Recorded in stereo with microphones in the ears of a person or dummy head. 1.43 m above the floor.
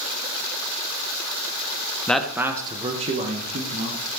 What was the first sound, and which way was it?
A man speaking, 10° left (ahead or behind).